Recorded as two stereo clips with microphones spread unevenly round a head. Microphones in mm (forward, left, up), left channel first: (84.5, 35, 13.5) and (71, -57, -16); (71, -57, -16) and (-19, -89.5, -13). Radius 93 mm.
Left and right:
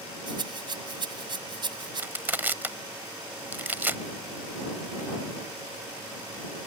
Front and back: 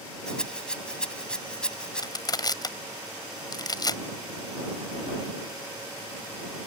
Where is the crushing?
25° right.